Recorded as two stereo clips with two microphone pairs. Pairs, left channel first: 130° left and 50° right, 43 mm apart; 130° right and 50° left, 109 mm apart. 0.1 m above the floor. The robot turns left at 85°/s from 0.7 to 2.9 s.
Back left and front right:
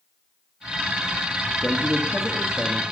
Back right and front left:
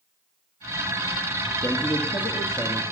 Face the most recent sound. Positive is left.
turn(degrees=155)